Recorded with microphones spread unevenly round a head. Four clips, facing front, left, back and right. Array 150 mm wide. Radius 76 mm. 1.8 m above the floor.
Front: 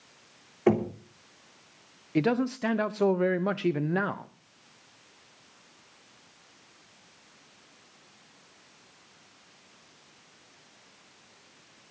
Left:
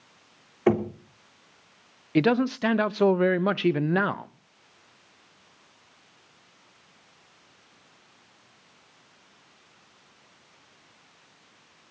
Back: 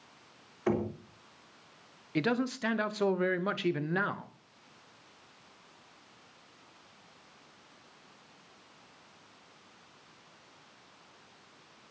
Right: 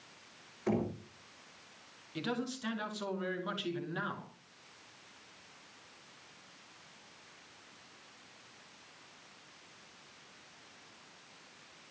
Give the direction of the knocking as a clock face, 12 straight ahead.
10 o'clock.